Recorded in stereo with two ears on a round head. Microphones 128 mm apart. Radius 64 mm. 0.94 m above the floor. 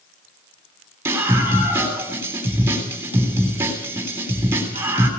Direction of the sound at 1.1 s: 15° right (ahead or behind).